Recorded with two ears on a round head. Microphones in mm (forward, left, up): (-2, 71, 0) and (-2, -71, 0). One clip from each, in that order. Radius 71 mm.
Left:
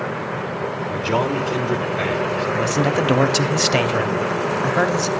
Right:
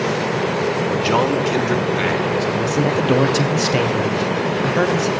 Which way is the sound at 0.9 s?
45° right (ahead or behind).